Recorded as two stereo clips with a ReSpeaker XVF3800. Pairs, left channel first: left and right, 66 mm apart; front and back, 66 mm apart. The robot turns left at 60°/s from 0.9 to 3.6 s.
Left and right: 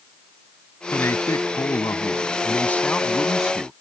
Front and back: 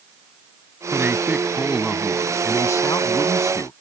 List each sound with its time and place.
0.9 s a man speaking: 140° left; by 3.7 s 20° right